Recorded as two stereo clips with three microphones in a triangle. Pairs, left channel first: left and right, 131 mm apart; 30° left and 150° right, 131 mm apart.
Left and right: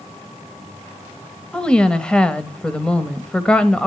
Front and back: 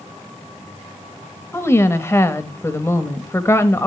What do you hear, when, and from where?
1.5 s a woman speaking: 25° left, 1.0 m